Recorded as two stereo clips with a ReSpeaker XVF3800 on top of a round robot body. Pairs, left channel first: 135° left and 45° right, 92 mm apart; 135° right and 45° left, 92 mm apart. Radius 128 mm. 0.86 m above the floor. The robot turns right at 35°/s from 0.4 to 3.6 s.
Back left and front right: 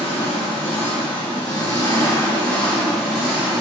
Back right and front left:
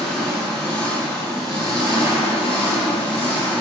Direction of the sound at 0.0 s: 135° left.